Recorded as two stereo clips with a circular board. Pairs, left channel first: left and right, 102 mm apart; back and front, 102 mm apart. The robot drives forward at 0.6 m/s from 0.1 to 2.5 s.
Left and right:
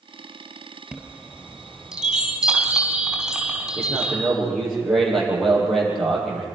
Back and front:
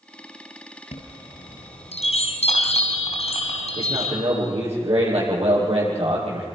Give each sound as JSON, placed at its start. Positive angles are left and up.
{"t": 0.9, "sound": "a chime", "azimuth_deg": -175, "distance_m": 3.0}
{"t": 3.8, "sound": "a man speaking", "azimuth_deg": 5, "distance_m": 9.0}